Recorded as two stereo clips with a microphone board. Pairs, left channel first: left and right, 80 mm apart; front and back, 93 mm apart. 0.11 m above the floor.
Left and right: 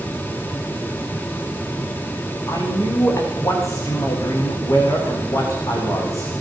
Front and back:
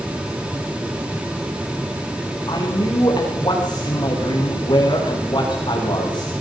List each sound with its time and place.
2.5 s a man speaking: 40° left, 8 m